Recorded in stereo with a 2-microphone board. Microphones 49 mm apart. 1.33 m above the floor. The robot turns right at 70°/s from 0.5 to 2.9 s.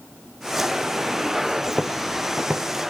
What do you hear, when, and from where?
1.7 s footsteps: 30° left (ahead or behind), 1.9 m; by 2.7 s 40° right (ahead or behind), 2.0 m